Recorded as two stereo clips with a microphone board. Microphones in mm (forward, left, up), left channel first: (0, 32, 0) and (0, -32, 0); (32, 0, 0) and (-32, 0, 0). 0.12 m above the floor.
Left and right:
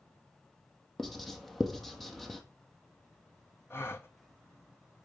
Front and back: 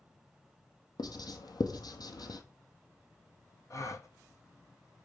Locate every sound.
1.0 s writing: straight ahead, 1.5 m
3.7 s a gasp: 40° left, 1.0 m